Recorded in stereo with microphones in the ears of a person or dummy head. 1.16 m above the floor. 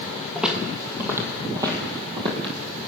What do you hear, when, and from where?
0.3 s footsteps: centre (ahead or behind), 1.7 m; by 2.5 s 35° right (ahead or behind), 2.5 m